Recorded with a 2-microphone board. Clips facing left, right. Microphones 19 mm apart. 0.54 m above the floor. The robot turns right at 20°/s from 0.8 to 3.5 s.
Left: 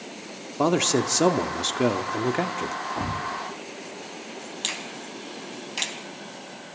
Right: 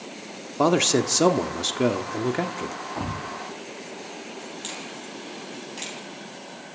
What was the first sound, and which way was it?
A man speaking, 15° right.